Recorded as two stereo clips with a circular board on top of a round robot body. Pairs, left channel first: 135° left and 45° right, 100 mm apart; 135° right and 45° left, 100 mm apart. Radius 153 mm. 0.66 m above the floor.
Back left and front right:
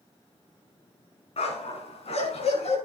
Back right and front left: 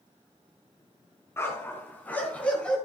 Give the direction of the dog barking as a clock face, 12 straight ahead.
7 o'clock.